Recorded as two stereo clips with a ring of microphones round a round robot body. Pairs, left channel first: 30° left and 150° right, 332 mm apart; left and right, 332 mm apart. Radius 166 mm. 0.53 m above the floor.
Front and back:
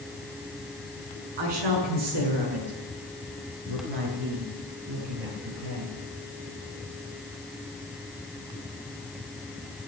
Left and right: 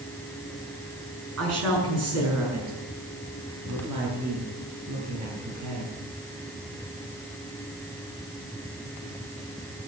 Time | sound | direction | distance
1.4 | a woman speaking | 140° right | 6 m